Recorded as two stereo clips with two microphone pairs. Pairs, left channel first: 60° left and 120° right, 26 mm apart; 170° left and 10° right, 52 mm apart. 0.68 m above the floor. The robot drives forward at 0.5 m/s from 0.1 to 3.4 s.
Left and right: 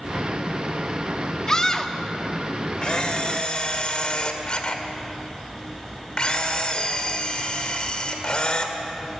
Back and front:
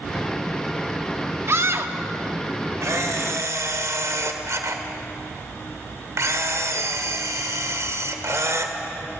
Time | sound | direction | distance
1.5 | a scream | 5° right | 1.3 m
2.8 | a camera shutter | 5° left | 2.0 m